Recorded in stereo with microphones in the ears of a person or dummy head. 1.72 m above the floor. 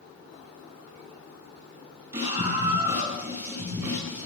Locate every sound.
2.1 s a scream: 15° right (ahead or behind), 8.5 m